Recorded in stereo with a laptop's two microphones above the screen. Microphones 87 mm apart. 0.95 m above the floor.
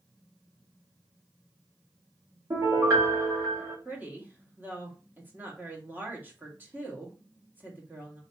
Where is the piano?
35° right (ahead or behind), 1.7 m.